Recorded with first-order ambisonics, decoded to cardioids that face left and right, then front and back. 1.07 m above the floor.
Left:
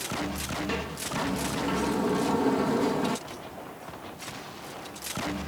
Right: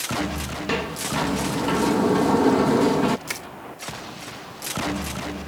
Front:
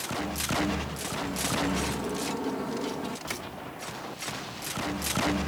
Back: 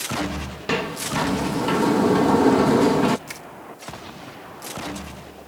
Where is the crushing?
90° right.